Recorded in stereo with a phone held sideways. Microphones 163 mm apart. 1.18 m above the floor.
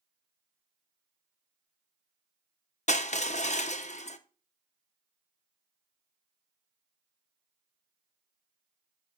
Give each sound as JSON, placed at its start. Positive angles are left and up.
{"t": 2.9, "sound": "crushing", "side_deg": 45, "distance_m": 0.6}